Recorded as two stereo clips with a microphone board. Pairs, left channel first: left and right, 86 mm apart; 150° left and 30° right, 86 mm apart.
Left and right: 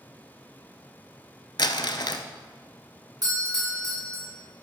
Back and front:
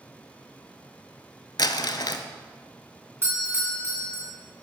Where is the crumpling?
120° left, 0.5 m.